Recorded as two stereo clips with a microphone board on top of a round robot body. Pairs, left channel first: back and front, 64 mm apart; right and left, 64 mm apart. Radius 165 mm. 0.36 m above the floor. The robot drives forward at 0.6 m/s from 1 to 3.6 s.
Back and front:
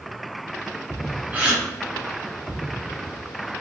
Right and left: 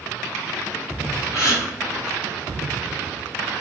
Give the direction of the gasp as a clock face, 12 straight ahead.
2 o'clock.